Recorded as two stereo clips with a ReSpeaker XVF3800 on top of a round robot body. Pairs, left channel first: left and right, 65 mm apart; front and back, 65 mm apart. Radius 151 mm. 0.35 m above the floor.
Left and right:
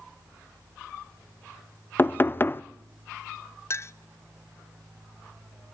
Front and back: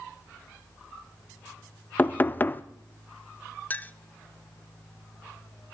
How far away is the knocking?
About 0.6 m.